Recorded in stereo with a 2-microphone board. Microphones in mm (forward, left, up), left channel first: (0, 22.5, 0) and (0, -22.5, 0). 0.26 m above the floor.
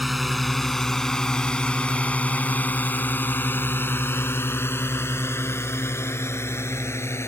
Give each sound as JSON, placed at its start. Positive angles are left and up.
{"t": 0.0, "sound": "a drone", "side_deg": 0}